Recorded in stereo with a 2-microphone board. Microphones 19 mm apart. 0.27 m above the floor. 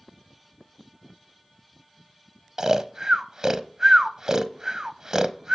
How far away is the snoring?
About 0.5 m.